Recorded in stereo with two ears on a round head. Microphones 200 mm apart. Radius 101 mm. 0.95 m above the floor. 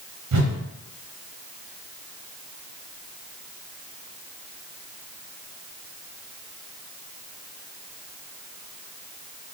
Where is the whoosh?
85° right, 0.8 m.